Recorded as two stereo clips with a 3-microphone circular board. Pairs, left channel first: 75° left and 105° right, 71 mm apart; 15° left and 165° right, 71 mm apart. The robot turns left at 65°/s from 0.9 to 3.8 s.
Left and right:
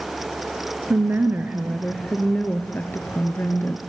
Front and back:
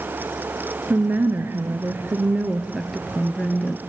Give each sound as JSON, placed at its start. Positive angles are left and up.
{"t": 0.9, "sound": "a woman speaking", "azimuth_deg": -120, "distance_m": 1.2}